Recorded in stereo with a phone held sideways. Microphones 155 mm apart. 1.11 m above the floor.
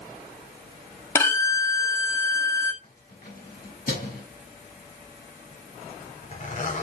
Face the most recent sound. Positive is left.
turn(degrees=60)  # may be behind; listen again after turning